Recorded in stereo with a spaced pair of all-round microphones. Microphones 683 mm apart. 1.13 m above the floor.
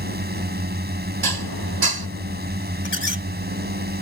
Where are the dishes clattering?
35° right (ahead or behind).